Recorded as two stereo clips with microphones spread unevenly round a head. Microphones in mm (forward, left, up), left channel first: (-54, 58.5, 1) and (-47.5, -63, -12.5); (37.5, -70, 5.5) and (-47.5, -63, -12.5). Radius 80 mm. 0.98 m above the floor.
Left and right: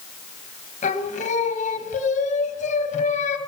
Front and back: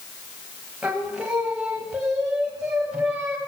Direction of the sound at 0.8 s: 100° left.